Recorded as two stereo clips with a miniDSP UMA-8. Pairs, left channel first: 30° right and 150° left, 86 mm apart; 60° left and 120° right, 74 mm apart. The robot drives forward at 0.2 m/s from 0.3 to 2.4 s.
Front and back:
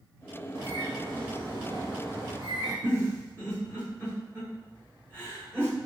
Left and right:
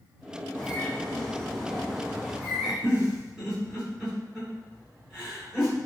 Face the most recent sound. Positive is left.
turn(degrees=170)